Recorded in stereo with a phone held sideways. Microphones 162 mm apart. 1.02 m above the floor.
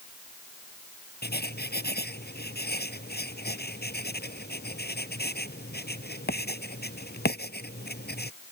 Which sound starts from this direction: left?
Writing, at 1.2 s.